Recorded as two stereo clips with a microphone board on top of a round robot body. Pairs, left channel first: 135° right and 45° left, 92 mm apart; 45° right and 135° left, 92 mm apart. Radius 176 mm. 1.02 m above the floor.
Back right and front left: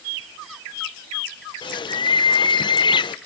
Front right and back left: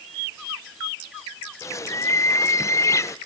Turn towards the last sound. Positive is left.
turn(degrees=-100)